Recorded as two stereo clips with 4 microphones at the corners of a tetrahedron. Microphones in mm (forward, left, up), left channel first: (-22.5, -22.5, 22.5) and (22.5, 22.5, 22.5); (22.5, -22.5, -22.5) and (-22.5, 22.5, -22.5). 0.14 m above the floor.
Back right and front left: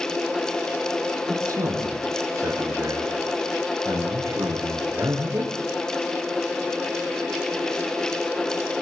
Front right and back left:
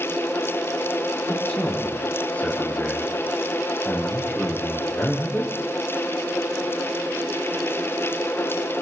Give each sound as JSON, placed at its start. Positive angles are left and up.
{"t": 1.3, "sound": "a man speaking", "azimuth_deg": 20, "distance_m": 7.5}